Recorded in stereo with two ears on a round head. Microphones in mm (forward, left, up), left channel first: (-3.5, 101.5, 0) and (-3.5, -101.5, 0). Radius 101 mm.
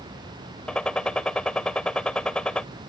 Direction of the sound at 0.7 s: 5° left (ahead or behind).